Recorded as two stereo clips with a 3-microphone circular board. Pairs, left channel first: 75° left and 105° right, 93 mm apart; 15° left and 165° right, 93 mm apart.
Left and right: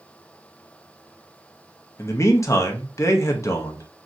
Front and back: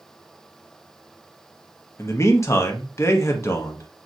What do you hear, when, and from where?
2.0 s a man speaking: 50° left, 0.6 m